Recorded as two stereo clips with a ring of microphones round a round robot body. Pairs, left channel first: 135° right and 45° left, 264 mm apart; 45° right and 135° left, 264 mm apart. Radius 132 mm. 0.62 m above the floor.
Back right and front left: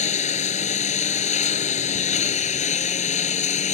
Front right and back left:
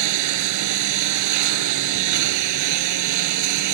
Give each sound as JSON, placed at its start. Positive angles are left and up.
{"t": 0.0, "sound": "a lawn mower", "azimuth_deg": 160}